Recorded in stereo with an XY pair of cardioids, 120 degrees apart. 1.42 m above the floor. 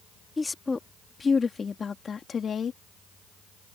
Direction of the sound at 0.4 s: 20° left.